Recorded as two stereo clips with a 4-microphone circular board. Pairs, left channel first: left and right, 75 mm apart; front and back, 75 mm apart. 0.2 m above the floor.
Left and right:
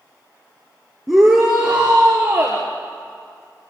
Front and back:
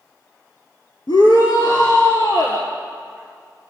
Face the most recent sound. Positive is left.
turn(degrees=-30)